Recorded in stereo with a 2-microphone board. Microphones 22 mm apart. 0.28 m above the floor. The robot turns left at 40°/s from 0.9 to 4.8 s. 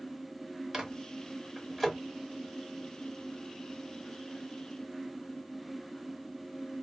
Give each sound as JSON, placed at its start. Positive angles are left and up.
{"t": 0.7, "sound": "a microwave", "side_deg": -20, "distance_m": 1.2}